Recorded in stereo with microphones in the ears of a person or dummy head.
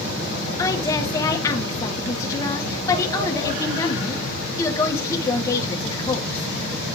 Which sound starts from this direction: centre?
A woman speaking, at 0.6 s.